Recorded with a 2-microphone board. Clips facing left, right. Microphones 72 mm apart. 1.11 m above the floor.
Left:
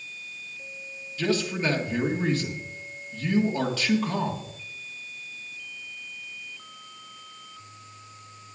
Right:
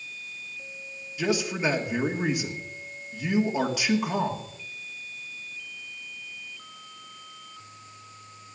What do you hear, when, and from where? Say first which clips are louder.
1.2 s a man speaking: even; 15° right (ahead or behind), 1.7 m